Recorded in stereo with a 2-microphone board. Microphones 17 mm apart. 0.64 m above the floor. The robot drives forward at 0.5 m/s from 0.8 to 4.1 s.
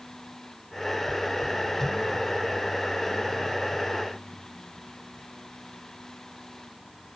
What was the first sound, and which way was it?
Only background noise.